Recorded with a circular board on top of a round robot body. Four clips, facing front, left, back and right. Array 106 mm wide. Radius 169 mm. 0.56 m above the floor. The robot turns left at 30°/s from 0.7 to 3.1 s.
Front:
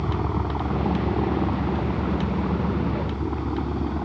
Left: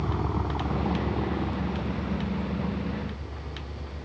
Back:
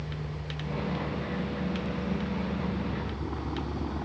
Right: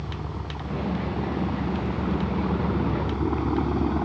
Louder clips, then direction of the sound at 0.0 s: Left 5 dB, front 12 dB; 20° left.